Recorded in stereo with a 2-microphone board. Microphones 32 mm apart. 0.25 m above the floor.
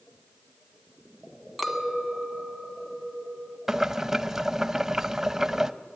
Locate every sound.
1.6 s a clink: centre (ahead or behind), 1.5 m
3.7 s boiling: 15° right (ahead or behind), 0.5 m